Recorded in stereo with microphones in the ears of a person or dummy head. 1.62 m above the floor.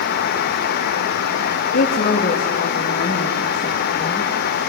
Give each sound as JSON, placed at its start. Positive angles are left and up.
{"t": 1.7, "sound": "a woman speaking", "side_deg": 50, "distance_m": 2.0}